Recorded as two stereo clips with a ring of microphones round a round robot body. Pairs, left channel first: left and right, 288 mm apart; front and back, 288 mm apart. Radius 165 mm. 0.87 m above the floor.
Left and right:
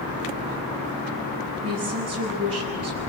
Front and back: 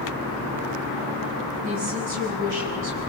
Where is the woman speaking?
165° right, 8.5 m.